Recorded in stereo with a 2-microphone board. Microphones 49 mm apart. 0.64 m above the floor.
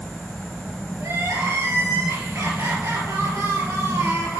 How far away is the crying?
About 2.5 m.